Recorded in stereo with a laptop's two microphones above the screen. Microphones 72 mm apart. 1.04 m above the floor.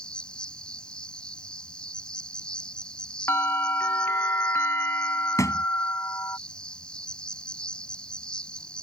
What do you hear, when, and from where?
0.0 s an insect: 15° left (ahead or behind)
3.3 s a bell: 35° left (ahead or behind)
5.4 s a thud: 50° left (ahead or behind)